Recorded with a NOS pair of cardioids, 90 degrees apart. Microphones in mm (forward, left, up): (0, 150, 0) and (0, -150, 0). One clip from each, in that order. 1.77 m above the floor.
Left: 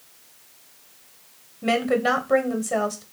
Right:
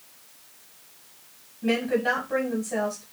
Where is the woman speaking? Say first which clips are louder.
Left 3 dB; 50° left, 1.3 m.